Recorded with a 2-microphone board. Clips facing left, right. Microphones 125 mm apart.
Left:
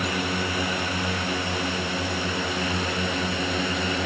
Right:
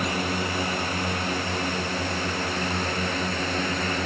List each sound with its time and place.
0.0 s a drone: centre (ahead or behind); by 4.1 s 10° left (ahead or behind)